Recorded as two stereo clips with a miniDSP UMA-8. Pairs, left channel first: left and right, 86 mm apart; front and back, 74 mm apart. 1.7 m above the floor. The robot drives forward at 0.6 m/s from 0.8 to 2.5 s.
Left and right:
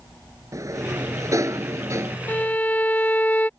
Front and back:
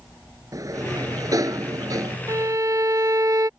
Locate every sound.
0.5 s a sliding door: 140° right; by 2.2 s 145° right
2.3 s a violin: 155° left